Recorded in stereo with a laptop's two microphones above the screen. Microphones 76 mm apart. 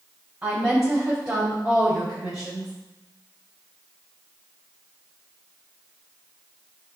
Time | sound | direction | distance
0.4 | a woman speaking | 5° right (ahead or behind) | 4.5 m